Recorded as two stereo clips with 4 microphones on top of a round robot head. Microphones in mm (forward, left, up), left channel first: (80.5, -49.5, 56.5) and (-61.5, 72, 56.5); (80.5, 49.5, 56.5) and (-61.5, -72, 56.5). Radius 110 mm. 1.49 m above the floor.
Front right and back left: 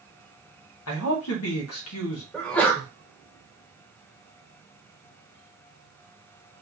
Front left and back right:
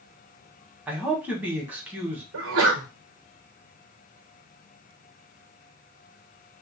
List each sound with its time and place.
0.9 s a man speaking: 55° right, 1.4 m
2.3 s a sneeze: 125° right, 1.3 m